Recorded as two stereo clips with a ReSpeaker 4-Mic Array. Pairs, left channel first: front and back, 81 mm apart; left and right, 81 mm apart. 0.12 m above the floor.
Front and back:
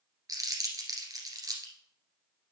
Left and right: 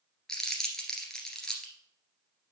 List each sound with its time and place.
0.3 s crumpling: 170° left, 1.8 m